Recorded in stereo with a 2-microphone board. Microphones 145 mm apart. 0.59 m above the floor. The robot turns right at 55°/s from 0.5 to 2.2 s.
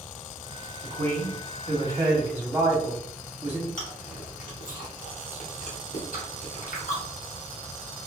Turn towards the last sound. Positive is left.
turn(degrees=65)  # may be behind; listen again after turning